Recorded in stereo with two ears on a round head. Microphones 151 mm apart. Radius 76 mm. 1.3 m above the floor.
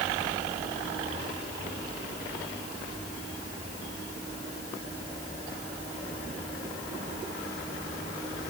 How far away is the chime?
I don't hear a chime.